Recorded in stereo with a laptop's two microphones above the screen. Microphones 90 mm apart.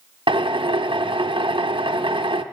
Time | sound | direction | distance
0.3 | a drill | 70° right (ahead or behind) | 0.8 m